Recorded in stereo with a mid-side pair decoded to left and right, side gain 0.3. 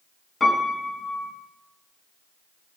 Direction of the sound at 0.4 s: 40° left.